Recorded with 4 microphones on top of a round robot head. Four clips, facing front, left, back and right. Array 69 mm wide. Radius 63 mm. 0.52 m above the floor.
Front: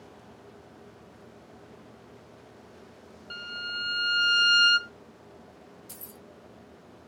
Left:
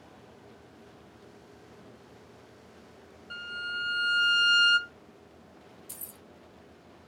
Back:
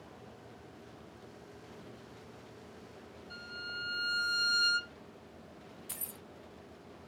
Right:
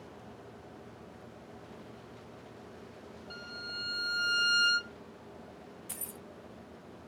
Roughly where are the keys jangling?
Behind right.